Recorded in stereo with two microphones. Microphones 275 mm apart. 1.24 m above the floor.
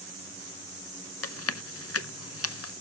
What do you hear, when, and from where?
1.2 s chewing: 60° left (ahead or behind), 0.6 m